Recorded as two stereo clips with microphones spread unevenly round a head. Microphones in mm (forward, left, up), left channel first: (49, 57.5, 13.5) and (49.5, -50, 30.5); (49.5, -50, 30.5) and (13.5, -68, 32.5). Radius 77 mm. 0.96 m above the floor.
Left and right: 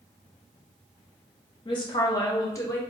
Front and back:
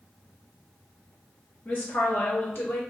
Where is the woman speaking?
65° left, 1.1 m; by 2.8 s 35° left, 1.3 m.